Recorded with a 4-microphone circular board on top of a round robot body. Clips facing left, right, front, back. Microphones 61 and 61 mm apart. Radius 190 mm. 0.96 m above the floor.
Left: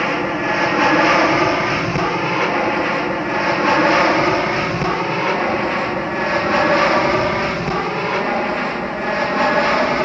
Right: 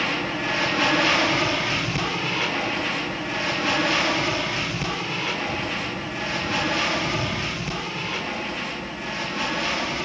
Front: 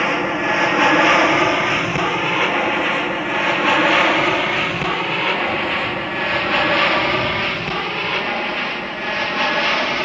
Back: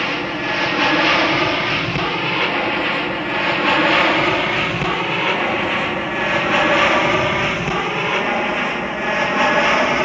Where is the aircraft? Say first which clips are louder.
Left 7 dB, front 3 dB; 55° left; by 10.0 s 110° left.